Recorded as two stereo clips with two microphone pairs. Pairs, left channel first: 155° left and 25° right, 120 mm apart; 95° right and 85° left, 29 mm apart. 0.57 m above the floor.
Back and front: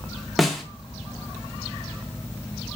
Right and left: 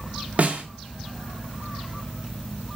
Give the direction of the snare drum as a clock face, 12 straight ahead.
10 o'clock.